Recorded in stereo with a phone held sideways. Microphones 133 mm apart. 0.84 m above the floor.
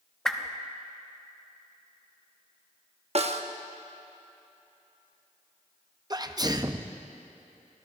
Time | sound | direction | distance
0.2 | a whoosh | 5° left (ahead or behind) | 0.8 m
3.1 | a snare drum | 55° right (ahead or behind) | 0.7 m
6.1 | a sneeze | 30° right (ahead or behind) | 0.6 m